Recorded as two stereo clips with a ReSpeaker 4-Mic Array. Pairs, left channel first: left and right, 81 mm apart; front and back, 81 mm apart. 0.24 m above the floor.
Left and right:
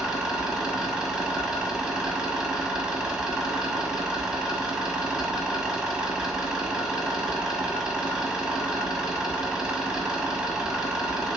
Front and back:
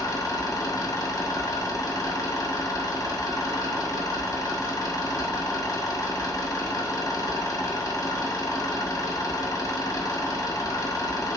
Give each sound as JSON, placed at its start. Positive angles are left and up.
{"t": 0.0, "sound": "an engine running", "azimuth_deg": -10, "distance_m": 0.8}